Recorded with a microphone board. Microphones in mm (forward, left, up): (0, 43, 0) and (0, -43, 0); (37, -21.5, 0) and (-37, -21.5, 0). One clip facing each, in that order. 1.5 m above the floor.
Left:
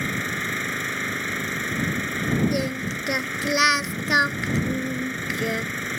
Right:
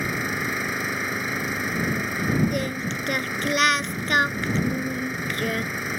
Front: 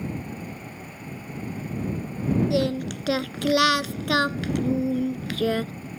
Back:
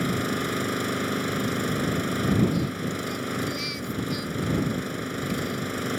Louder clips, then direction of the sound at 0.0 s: Right 1 dB, back 7 dB; 175° right.